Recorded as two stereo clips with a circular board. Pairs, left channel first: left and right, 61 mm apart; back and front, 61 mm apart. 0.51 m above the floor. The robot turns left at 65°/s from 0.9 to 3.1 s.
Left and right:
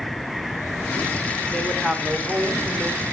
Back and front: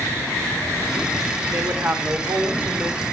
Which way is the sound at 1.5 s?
30° left.